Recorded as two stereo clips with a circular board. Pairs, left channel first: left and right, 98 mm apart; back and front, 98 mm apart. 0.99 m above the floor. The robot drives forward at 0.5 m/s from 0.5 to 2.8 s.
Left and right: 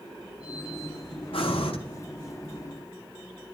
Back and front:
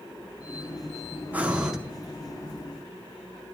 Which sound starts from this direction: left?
Breathing, at 1.3 s.